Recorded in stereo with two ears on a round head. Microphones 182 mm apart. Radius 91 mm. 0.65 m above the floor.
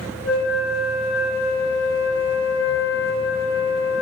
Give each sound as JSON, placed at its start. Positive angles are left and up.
{"t": 0.2, "sound": "a flute", "side_deg": 80, "distance_m": 6.5}